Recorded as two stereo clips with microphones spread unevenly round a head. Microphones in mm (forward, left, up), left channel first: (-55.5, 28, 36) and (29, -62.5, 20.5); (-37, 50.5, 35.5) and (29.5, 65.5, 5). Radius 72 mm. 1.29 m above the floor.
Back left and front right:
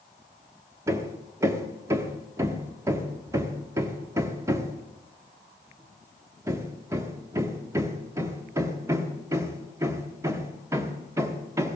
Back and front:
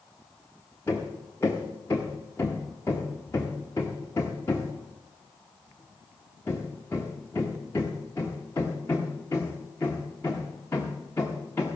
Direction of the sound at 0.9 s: 115° right.